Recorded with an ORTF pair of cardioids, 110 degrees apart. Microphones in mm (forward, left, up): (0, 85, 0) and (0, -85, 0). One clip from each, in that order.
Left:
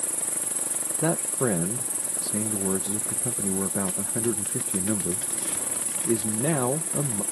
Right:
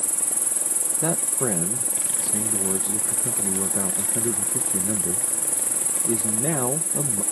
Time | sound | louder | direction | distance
0.0 | an insect | right 4 dB | 35° right | ?
1.0 | a man speaking | left 1 dB | 10° left | ?